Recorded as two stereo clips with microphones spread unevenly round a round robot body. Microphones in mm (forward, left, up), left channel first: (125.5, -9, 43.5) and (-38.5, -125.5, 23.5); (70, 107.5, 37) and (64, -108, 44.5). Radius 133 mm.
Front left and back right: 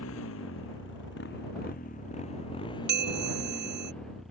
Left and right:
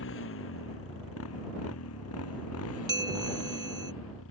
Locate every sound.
0.0 s a motorcycle: 70° left; by 4.3 s 125° left
2.9 s a bell: 165° right